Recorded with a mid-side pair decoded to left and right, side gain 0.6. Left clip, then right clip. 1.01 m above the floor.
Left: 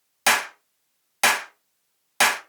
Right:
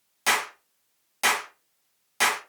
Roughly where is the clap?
Ahead left.